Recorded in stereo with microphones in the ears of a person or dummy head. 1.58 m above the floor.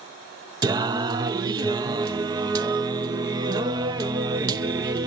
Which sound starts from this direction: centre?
Singing, at 0.6 s.